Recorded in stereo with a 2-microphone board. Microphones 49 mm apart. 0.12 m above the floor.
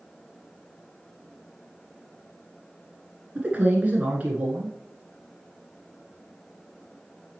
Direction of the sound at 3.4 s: 30° right (ahead or behind).